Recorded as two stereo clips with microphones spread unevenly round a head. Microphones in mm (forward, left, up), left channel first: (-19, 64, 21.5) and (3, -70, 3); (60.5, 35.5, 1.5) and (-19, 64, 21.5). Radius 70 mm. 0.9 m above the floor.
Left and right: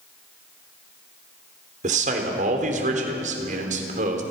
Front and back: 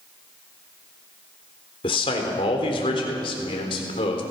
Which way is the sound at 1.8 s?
50° right.